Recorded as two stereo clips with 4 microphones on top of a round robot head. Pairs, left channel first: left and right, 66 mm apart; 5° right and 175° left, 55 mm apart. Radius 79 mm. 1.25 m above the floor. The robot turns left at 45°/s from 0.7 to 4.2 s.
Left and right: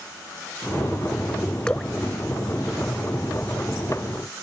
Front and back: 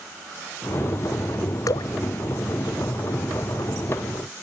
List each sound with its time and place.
1.7 s dripping: 10° left; by 1.9 s straight ahead